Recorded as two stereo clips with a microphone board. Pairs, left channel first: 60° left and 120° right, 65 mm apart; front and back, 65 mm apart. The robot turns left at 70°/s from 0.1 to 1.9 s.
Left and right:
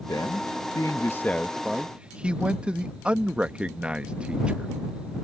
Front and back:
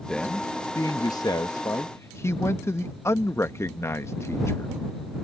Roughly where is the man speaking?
Left.